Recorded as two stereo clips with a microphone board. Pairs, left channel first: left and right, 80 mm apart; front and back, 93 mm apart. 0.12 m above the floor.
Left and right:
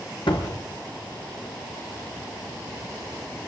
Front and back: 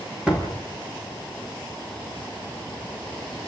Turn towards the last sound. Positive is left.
turn(degrees=100)